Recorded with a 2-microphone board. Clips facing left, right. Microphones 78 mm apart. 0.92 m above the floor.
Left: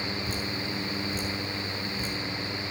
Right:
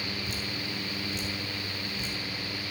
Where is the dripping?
40° left (ahead or behind), 4 m.